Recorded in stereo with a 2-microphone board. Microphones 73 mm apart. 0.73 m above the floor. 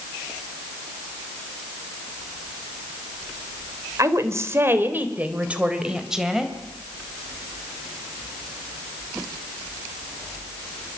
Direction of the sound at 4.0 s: 50° right (ahead or behind).